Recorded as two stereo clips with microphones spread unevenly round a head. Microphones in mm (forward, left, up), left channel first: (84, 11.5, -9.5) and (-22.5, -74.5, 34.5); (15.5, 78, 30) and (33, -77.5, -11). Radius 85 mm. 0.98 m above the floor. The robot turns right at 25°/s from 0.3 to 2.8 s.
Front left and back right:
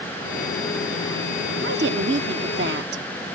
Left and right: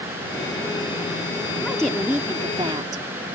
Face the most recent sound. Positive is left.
turn(degrees=-150)